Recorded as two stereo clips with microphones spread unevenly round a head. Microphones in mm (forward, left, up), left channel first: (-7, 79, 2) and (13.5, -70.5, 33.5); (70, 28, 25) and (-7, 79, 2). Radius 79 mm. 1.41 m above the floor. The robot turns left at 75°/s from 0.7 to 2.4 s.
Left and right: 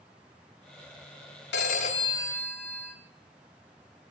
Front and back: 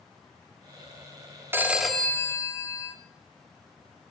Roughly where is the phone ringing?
Left.